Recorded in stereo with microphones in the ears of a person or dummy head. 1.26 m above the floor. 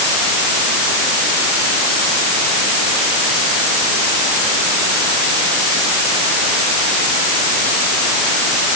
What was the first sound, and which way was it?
Only background noise.